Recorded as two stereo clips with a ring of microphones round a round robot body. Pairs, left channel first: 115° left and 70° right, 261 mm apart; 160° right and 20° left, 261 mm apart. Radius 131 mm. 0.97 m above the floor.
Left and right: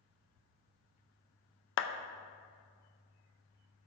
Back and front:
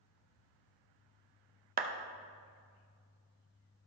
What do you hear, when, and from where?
1.8 s a clap: 75° left, 0.6 m